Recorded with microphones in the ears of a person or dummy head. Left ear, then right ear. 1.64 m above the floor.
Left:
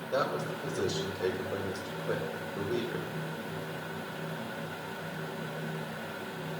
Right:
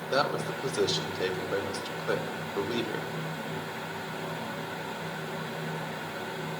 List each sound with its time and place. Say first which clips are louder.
0.1 s a man speaking: right 3 dB; 70° right (ahead or behind), 1.5 m